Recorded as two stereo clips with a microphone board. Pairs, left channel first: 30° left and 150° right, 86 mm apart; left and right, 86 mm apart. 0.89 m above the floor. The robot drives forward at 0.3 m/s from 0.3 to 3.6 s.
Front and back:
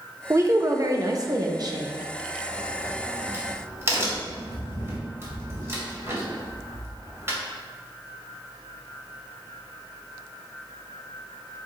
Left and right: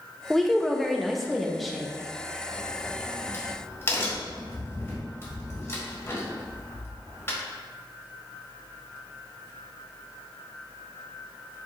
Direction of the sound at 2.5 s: 145° left.